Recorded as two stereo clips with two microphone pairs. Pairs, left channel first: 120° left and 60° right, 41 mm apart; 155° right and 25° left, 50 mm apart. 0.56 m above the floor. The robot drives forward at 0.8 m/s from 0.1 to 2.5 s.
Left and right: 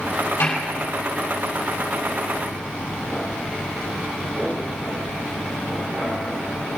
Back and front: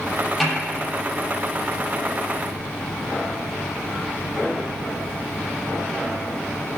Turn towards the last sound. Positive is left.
turn(degrees=130)